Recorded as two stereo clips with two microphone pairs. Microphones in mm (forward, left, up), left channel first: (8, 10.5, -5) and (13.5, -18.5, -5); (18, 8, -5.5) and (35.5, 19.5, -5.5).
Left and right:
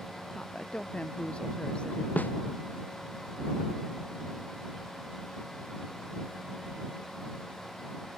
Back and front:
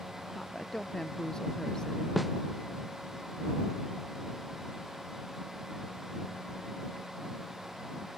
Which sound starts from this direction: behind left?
A snare drum, at 2.2 s.